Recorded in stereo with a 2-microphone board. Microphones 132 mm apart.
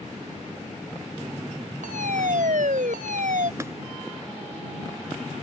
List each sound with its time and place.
1.8 s a fire alarm: 80° right
3.6 s tapping: 20° right (ahead or behind)